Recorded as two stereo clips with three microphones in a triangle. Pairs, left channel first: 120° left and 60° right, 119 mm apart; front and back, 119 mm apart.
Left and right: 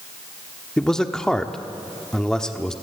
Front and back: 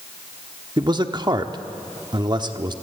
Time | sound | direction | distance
0.8 | a man speaking | 160° right | 1.1 m